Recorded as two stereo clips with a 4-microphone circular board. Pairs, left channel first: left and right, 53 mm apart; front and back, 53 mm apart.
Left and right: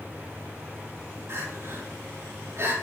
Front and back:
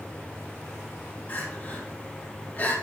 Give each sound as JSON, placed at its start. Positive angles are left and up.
{"t": 1.3, "sound": "crying", "azimuth_deg": -60, "distance_m": 5.0}